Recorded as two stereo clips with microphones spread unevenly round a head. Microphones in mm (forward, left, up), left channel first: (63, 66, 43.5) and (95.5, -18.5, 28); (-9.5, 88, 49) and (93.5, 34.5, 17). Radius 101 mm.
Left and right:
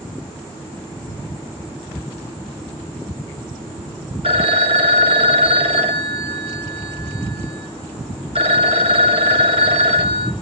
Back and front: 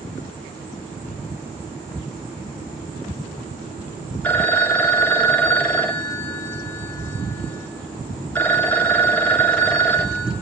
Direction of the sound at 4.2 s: 130° right.